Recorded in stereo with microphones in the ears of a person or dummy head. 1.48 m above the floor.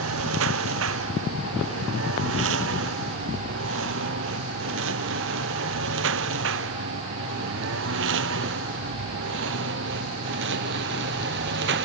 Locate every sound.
0.0 s a lawn mower: 85° right; by 11.8 s 70° right (ahead or behind)